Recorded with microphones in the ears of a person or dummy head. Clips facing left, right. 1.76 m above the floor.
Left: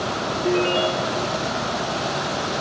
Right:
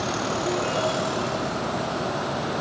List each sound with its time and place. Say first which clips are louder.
0.4 s a ringtone: left 7 dB; 45° left (ahead or behind), 4 m